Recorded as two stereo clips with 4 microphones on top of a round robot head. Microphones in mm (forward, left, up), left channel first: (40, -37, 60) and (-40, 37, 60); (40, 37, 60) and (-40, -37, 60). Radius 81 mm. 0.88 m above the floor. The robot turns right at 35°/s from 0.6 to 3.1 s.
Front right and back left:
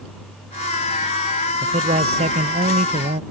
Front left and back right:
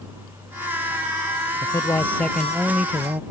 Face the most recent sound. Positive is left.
turn(degrees=155)